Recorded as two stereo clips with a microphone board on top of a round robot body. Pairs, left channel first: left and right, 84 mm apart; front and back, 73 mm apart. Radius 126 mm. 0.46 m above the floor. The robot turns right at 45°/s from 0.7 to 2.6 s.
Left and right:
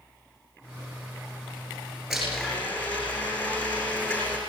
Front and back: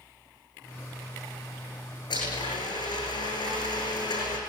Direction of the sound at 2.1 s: Straight ahead.